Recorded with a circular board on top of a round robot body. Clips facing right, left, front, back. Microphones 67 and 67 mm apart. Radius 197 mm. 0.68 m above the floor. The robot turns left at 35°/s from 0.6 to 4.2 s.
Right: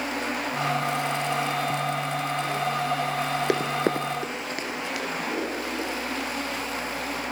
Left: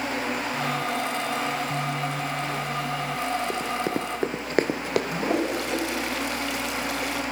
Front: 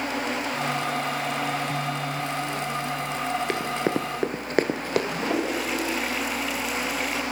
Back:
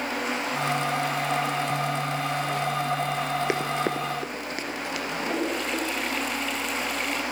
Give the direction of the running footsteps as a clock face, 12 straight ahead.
3 o'clock.